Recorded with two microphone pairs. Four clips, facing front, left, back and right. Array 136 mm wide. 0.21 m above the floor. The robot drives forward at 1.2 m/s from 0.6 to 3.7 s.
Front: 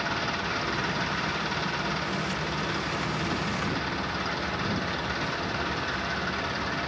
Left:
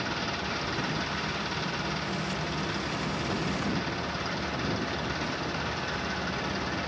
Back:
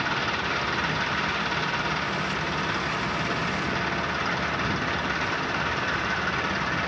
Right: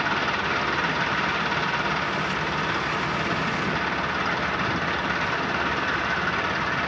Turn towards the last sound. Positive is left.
turn(degrees=-105)